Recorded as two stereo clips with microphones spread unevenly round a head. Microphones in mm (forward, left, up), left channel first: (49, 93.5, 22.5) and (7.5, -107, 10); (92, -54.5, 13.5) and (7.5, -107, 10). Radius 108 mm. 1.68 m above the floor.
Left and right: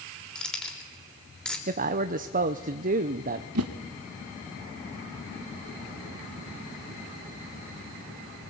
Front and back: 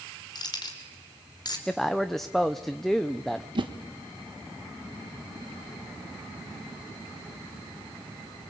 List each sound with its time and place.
0.3 s keys jangling: 5° right, 4 m
1.7 s a man speaking: 55° right, 0.9 m
3.5 s a whoosh: 115° right, 1.5 m